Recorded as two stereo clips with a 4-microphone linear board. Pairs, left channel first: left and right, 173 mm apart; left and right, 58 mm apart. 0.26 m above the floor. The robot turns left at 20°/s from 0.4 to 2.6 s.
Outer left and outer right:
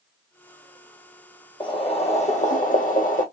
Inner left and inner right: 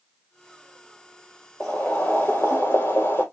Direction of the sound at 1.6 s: 30° left (ahead or behind).